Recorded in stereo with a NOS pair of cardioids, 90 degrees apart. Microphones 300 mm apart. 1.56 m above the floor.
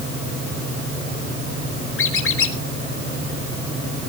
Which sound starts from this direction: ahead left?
A squeak, at 2.0 s.